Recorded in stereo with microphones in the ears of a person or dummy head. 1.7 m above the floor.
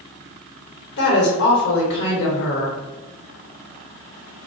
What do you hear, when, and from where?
1.0 s a woman speaking: 60° left (ahead or behind), 1.0 m